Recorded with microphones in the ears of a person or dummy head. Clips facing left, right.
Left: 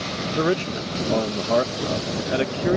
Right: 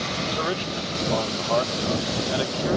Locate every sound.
0.3 s a man speaking: 30° left (ahead or behind)